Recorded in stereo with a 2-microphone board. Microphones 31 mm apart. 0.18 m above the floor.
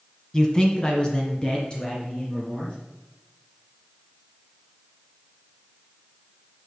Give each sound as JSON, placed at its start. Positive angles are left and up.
{"t": 0.3, "sound": "a man speaking", "side_deg": 20, "distance_m": 1.1}